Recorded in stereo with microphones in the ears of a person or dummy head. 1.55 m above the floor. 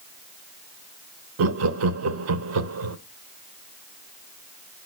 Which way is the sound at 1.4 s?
75° right (ahead or behind).